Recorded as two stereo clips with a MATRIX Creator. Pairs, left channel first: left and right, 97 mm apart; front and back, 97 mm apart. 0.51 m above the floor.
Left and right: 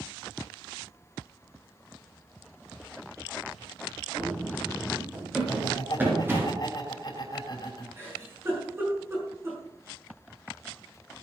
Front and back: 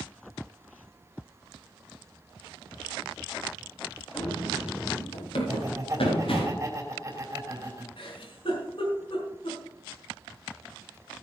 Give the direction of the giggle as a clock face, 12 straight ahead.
1 o'clock.